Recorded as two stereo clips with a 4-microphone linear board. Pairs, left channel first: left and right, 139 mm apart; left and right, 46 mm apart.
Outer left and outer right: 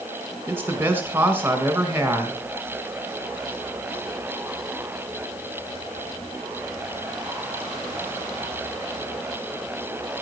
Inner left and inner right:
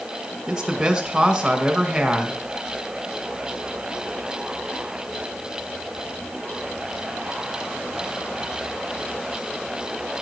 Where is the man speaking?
15° right (ahead or behind), 1.9 m.